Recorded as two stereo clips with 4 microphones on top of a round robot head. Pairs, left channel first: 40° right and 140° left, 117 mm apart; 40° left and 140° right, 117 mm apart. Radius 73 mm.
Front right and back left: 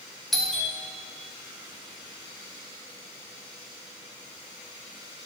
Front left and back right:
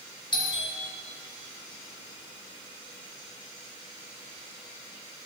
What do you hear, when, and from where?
0.3 s a doorbell: 45° left, 1.7 m